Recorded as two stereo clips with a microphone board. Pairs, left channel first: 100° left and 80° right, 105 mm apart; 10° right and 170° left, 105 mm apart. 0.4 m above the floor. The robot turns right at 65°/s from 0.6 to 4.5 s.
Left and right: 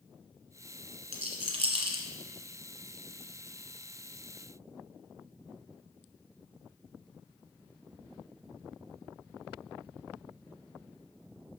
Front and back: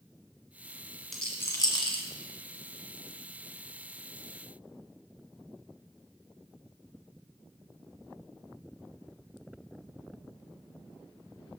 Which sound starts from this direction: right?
A rattle, at 1.1 s.